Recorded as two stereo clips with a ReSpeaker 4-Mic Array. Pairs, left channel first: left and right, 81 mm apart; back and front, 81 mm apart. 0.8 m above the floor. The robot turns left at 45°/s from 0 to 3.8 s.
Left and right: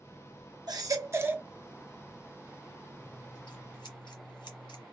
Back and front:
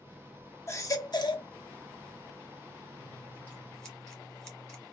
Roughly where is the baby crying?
Behind right.